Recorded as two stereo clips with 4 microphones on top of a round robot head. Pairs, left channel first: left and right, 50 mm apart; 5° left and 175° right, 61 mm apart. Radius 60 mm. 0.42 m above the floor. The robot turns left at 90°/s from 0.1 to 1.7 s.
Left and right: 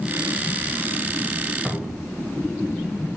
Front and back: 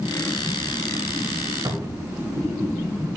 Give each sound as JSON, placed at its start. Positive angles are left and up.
{"t": 1.6, "sound": "a cupboard door", "azimuth_deg": -175, "distance_m": 1.6}